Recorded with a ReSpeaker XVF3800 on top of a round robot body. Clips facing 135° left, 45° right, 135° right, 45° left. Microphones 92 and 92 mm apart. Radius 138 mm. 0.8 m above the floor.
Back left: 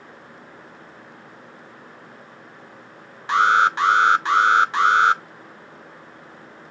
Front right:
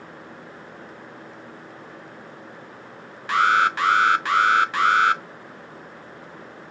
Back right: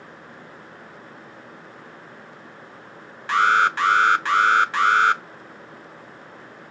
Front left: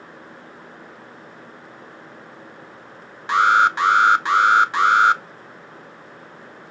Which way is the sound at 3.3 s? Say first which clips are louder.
Back left 2 dB, front left 2 dB; 100° left.